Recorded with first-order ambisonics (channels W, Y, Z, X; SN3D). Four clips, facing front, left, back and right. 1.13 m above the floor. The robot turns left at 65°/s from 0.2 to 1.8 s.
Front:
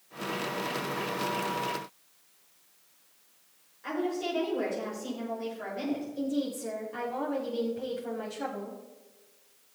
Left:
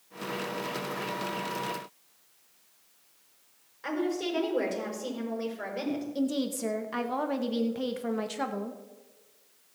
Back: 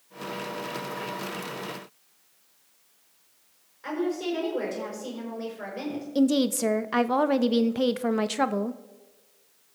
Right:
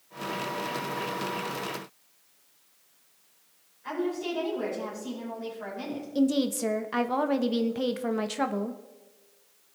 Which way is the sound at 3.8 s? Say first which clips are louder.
Even, back 3 dB; 110° left.